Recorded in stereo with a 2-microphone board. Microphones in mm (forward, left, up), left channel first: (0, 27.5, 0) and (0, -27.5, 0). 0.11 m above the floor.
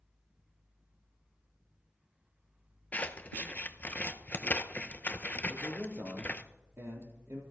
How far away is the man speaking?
About 3 m.